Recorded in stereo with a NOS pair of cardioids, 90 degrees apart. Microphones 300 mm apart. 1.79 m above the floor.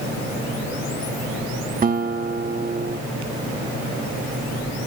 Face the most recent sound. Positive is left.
turn(degrees=-30)